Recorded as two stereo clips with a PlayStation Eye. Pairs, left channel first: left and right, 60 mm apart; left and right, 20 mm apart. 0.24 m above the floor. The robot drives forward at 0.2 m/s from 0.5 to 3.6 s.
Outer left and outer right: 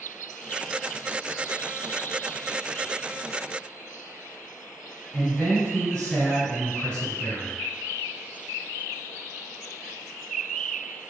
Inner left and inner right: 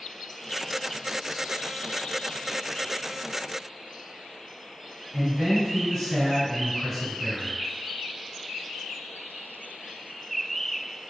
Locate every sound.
5.1 s a man speaking: 10° left (ahead or behind), 1.9 m